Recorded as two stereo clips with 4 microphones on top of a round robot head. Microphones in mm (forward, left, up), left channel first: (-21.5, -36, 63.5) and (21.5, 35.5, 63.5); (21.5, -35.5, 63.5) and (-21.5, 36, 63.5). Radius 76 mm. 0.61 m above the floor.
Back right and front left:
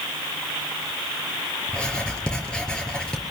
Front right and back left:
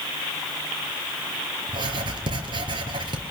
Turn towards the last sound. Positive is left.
turn(degrees=160)